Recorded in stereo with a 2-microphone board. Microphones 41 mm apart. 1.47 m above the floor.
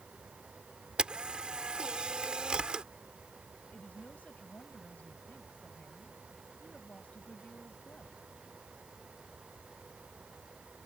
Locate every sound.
1.0 s a camera shutter: 25° right (ahead or behind)
3.7 s a woman speaking: 40° left (ahead or behind)